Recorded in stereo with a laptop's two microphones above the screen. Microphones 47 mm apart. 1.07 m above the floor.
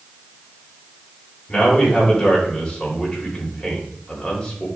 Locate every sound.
1.5 s a man speaking: 15° left (ahead or behind), 5.5 m